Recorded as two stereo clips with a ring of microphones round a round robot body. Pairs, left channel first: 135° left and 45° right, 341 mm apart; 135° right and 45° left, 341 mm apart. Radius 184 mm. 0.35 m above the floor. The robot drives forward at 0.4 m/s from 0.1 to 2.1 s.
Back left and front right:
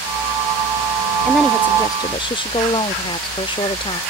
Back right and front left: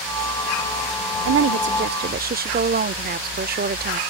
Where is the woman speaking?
45° left; by 4.0 s 75° left.